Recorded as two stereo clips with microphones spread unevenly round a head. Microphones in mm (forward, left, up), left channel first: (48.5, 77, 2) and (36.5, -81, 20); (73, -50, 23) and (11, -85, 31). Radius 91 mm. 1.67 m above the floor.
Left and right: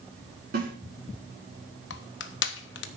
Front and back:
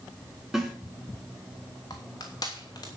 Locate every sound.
0.5 s a snare drum: 65° right, 5 m
1.9 s crushing: 100° left, 0.9 m